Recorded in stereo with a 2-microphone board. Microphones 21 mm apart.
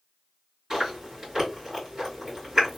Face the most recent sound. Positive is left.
turn(degrees=-20)  # may be behind; listen again after turning